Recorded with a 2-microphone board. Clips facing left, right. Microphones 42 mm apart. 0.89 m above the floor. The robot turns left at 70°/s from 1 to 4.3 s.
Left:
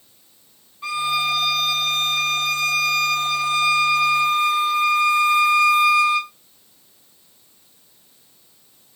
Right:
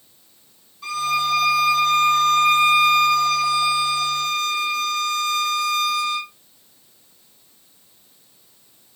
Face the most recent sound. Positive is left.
turn(degrees=160)